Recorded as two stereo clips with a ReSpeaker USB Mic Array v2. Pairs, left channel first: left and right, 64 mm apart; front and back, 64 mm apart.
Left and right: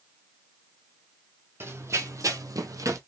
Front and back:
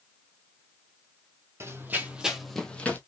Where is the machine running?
No machine running in this recording.